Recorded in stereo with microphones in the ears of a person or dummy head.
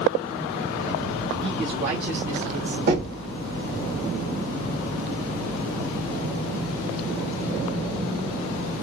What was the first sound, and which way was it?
A man speaking, 25° right (ahead or behind).